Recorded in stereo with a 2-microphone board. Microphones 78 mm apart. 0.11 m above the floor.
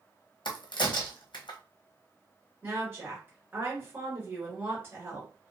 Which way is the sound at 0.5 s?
85° left.